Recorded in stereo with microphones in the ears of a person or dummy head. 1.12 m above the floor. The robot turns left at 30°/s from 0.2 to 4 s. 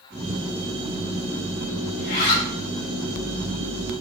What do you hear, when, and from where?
2.0 s a zipper: 55° left (ahead or behind), 1.9 m; by 2.5 s 40° left (ahead or behind), 1.9 m